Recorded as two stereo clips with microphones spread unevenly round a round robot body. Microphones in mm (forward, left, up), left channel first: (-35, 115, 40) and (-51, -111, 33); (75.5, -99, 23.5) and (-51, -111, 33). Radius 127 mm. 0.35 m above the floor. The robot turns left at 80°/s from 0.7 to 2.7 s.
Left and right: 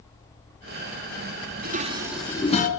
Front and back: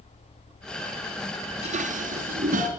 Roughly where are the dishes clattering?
Behind right.